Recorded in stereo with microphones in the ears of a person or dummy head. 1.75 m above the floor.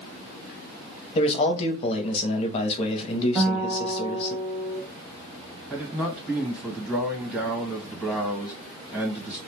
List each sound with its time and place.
1.1 s a man speaking: 40° left (ahead or behind), 0.7 m
3.4 s a guitar: 5° right (ahead or behind), 1.1 m
5.7 s a man speaking: 10° right (ahead or behind), 1.3 m